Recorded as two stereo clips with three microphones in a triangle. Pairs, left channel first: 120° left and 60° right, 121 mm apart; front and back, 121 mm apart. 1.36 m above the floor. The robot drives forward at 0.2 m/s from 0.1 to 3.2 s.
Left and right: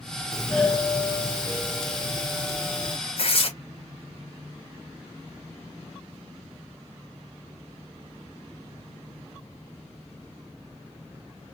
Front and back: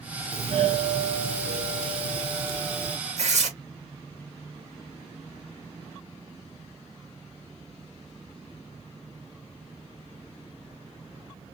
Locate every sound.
0.3 s a doorbell: 155° right, 0.8 m; by 3.0 s 165° right, 1.3 m
3.2 s tearing paper: 160° left, 1.0 m